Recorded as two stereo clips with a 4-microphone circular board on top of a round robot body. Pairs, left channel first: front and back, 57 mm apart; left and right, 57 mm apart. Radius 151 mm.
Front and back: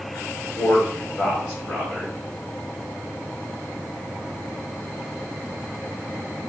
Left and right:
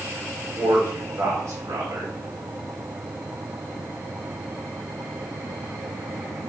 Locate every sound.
0.6 s a man speaking: 65° right, 4.5 m